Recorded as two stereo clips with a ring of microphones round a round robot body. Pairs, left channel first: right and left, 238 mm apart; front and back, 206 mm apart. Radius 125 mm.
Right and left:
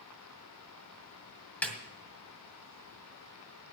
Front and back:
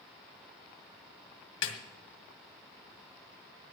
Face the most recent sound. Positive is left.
turn(degrees=-5)